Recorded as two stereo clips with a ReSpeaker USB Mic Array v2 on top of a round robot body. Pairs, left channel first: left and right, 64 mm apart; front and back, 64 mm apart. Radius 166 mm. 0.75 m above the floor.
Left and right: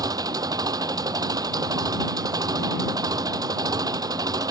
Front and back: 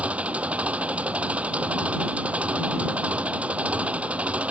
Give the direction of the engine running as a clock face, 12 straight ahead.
4 o'clock.